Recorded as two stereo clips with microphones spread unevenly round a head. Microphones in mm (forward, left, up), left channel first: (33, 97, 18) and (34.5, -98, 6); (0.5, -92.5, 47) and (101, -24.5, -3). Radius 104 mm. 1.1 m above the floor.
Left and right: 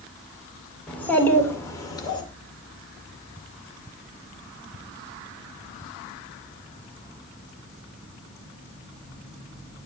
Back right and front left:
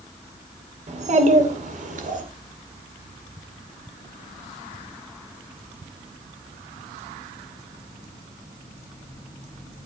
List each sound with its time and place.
0.9 s a child speaking: 5° left, 2.5 m; by 2.2 s 20° left, 2.5 m